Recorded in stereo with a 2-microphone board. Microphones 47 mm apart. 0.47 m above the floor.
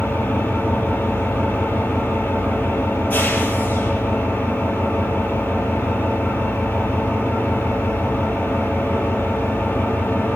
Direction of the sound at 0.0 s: 35° left (ahead or behind).